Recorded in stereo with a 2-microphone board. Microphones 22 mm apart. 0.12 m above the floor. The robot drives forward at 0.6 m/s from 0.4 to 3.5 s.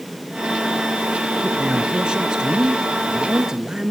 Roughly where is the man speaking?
Right.